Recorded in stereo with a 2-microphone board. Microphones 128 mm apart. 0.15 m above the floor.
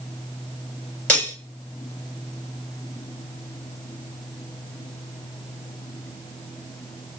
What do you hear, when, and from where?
1.1 s cutlery clinking: 10° left (ahead or behind), 1.8 m